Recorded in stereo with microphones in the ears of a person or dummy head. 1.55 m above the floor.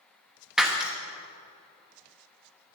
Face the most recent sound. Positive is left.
turn(degrees=-5)  # may be behind; listen again after turning